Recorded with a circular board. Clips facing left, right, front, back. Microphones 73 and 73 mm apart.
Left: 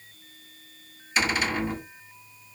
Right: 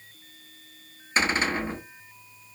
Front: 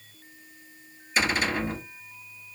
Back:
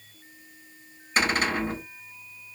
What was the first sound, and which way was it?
A cupboard door, 140° right.